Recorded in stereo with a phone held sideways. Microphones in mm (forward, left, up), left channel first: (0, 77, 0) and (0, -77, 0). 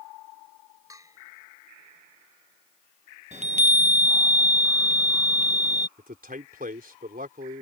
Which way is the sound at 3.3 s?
50° right (ahead or behind).